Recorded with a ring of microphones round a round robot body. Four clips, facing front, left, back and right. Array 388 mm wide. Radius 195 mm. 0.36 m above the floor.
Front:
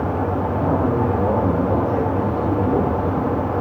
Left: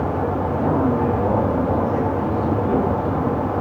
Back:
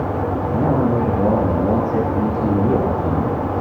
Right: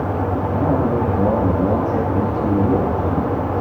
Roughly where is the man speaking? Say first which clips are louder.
Right 1 dB, back 3 dB; behind.